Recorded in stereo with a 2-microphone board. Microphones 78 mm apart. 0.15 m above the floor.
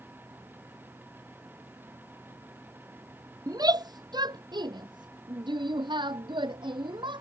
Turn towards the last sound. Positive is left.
turn(degrees=-80)